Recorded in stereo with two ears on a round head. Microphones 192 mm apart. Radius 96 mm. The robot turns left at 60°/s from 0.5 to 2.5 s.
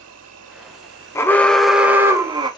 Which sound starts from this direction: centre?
An alarm, at 1.1 s.